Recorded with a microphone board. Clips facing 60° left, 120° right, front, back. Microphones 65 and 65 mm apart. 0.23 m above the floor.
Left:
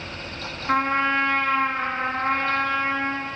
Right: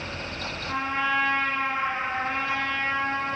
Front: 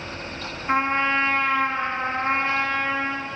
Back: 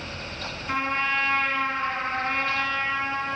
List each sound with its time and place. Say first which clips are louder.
0.7 s a trumpet: left 5 dB, front 5 dB; 50° left, 1.9 m